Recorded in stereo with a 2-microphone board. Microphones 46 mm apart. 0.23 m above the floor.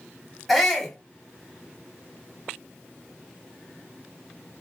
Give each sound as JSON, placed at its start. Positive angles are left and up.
{"t": 0.5, "sound": "a shout", "side_deg": 0, "distance_m": 1.3}